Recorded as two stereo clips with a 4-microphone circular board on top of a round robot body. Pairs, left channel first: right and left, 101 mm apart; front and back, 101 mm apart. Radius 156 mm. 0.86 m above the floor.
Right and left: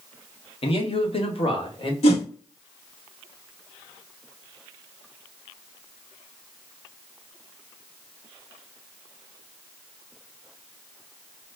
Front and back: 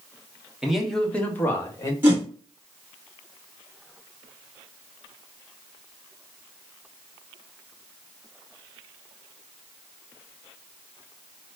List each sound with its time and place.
0.6 s a man speaking: 95° right, 1.1 m; by 1.9 s 60° right, 1.5 m
2.0 s a whoosh: 105° right, 1.1 m